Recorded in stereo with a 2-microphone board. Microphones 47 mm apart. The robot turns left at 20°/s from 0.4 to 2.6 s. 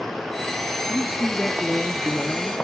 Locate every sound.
0.9 s a man speaking: 150° right, 1.9 m; by 2.6 s 175° left, 1.9 m